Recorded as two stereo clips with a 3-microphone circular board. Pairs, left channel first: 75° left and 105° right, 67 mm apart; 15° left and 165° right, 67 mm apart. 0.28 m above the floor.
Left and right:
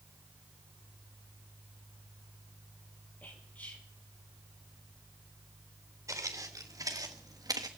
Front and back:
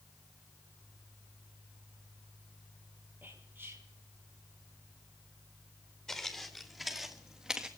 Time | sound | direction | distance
3.2 | whispering | 140° left | 6.5 m
6.1 | footsteps | 65° right | 2.5 m